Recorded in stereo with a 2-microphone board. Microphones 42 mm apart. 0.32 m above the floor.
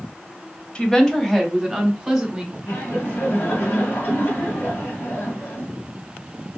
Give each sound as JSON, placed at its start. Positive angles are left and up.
{"t": 0.8, "sound": "a woman speaking", "side_deg": 25, "distance_m": 1.1}
{"t": 2.7, "sound": "laughter", "side_deg": 40, "distance_m": 1.8}